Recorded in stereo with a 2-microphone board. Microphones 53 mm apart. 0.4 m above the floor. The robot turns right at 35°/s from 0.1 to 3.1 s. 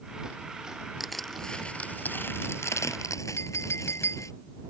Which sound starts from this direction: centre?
Crushing, at 1.0 s.